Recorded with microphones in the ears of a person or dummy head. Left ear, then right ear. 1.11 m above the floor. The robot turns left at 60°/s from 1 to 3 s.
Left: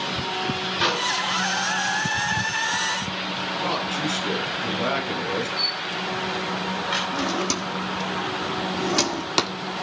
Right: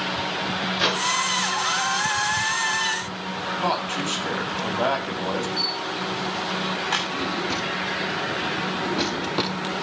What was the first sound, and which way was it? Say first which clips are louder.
A microwave: even; 10° right (ahead or behind).